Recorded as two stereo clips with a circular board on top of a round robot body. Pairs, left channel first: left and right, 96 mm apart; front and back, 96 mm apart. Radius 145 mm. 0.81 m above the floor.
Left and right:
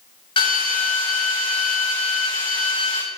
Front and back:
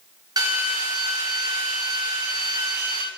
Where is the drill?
125° left, 6 m.